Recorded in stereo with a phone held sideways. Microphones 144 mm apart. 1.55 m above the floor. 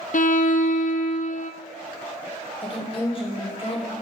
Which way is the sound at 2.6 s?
40° left (ahead or behind).